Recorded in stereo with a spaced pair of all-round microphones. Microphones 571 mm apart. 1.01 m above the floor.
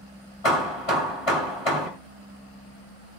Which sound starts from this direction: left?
Hammering, at 0.4 s.